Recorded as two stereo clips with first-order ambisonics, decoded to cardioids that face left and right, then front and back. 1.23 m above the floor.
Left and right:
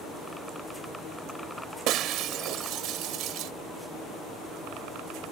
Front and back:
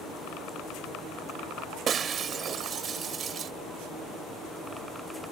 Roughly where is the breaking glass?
Behind right.